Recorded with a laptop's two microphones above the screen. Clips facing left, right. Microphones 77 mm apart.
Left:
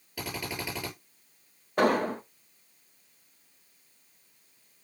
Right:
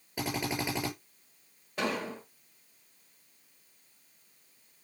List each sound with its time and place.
0.2 s a drill: 25° right (ahead or behind), 7 m
1.8 s an explosion: 50° left (ahead or behind), 1.1 m